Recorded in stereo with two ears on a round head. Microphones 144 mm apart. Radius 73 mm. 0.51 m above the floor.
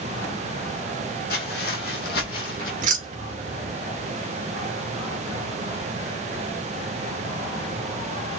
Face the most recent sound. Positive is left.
turn(degrees=-55)  # may be behind; listen again after turning